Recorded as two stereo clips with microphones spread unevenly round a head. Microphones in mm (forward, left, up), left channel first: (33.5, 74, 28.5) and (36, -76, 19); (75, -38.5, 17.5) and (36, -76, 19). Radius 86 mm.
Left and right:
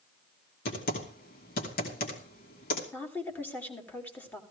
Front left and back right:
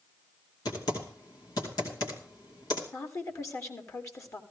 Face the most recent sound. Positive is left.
turn(degrees=15)